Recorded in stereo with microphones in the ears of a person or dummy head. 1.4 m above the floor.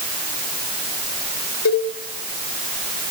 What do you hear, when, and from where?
1.6 s a cowbell: 85° left, 4.5 m